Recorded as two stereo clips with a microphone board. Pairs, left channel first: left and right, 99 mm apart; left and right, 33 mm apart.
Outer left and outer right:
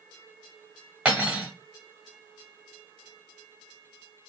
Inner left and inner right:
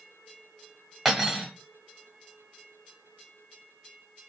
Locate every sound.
1.1 s cutlery clinking: 10° right (ahead or behind), 1.2 m